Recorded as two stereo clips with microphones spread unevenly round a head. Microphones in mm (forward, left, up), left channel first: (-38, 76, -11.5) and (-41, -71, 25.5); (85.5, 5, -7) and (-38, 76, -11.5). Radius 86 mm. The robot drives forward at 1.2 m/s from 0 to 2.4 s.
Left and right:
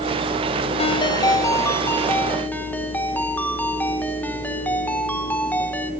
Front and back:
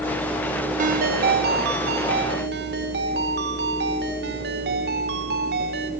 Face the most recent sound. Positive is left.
turn(degrees=170)